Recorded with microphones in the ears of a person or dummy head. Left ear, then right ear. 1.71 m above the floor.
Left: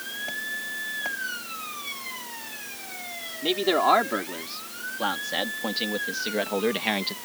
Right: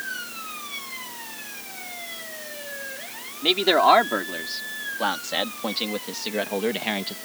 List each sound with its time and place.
3.4 s a man speaking: 25° right (ahead or behind); by 7.2 s 10° left (ahead or behind)